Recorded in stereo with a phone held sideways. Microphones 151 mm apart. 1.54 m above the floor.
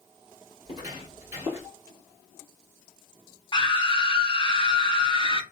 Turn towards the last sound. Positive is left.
turn(degrees=35)  # may be behind; listen again after turning